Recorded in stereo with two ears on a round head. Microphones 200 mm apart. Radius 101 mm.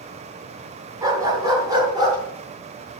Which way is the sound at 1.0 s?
15° right (ahead or behind).